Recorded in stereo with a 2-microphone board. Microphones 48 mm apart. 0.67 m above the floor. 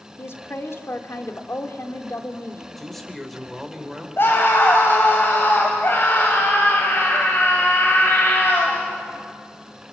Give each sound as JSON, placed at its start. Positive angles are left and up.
{"t": 0.2, "sound": "a woman speaking", "side_deg": 60, "distance_m": 2.0}
{"t": 2.8, "sound": "a man speaking", "side_deg": 0, "distance_m": 3.0}
{"t": 4.2, "sound": "a scream", "side_deg": 50, "distance_m": 3.0}